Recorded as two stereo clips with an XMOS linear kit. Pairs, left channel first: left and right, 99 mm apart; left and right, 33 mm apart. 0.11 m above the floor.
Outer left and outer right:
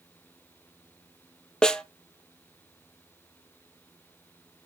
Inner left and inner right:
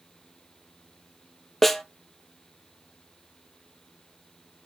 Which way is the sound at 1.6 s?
10° left (ahead or behind).